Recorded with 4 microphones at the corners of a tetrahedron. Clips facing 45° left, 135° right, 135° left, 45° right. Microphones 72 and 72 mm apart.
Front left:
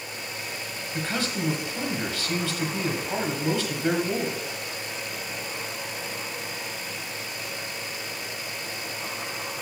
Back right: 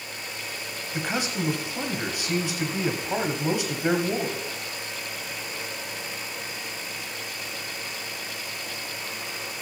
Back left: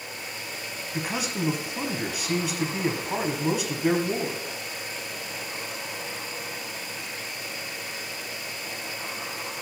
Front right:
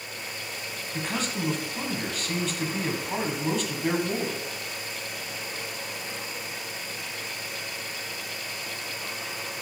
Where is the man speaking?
160° right, 1.1 m.